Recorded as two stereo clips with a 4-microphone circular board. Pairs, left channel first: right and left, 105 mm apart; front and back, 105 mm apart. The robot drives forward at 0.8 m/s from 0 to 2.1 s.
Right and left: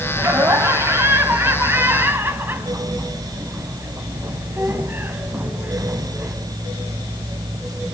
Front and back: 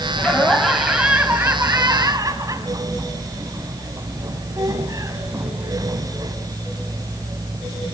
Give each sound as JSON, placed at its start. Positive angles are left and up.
{"t": 0.2, "sound": "laughter", "azimuth_deg": 60, "distance_m": 1.7}